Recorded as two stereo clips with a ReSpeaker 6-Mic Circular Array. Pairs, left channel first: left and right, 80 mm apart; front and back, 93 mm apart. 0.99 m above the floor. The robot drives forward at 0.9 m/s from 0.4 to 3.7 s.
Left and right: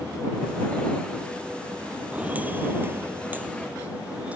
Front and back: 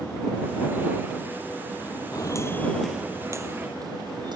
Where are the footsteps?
20° right; by 4.4 s 160° right.